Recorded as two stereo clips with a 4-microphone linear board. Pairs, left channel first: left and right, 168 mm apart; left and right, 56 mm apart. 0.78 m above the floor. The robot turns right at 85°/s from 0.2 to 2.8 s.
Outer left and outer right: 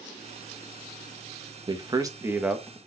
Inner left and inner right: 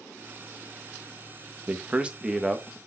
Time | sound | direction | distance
1.7 | a man speaking | 25° right (ahead or behind) | 1.0 m